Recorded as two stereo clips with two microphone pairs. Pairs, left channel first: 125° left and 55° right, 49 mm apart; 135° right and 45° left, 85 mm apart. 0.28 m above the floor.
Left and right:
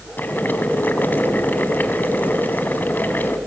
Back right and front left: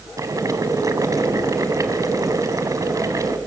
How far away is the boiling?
About 1.5 m.